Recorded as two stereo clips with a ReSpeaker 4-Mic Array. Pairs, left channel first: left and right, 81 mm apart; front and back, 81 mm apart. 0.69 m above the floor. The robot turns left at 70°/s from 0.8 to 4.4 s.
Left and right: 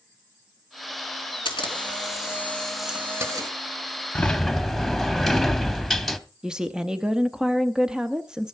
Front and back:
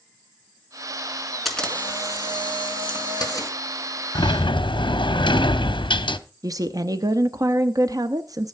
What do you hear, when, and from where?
1.4 s a camera shutter: 90° left, 2.5 m; by 3.5 s 50° right, 2.5 m
4.2 s a sliding door: 20° left, 0.7 m; by 6.2 s straight ahead, 0.7 m
6.4 s a woman speaking: 165° right, 0.7 m